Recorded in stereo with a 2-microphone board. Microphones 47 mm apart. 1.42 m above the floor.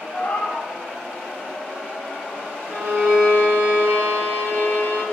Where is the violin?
80° right, 3 m.